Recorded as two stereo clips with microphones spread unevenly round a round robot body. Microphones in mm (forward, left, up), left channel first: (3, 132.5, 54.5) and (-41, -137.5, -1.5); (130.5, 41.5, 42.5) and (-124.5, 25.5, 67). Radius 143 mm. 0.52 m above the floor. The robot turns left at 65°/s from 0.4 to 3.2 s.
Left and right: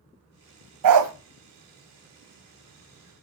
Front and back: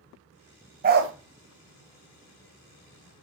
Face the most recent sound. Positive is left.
turn(degrees=90)